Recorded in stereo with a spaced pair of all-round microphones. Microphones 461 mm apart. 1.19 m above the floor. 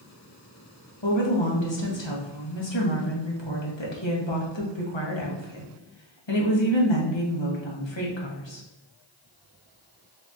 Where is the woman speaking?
70° left (ahead or behind), 1.2 m.